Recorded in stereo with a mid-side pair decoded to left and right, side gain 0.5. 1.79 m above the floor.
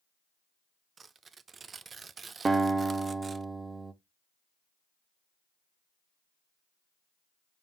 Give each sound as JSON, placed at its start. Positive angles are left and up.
{"t": 1.0, "sound": "tearing paper", "azimuth_deg": -35, "distance_m": 0.6}
{"t": 2.5, "sound": "a guitar", "azimuth_deg": -30, "distance_m": 1.0}